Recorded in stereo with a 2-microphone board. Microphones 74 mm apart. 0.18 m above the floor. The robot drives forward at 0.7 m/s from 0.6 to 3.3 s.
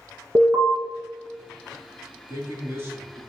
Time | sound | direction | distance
0.3 | an alarm | 45° right (ahead or behind) | 1.1 m
2.3 | a man speaking | 35° right (ahead or behind) | 1.3 m